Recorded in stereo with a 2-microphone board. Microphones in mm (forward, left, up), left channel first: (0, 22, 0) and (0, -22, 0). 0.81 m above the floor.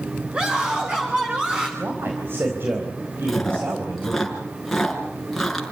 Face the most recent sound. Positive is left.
turn(degrees=5)  # may be behind; listen again after turning